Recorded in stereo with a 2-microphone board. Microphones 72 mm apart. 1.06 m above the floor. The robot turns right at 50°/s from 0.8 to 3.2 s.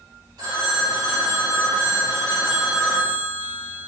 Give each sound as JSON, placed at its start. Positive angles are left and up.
{"t": 0.4, "sound": "a phone ringing", "azimuth_deg": -110, "distance_m": 1.8}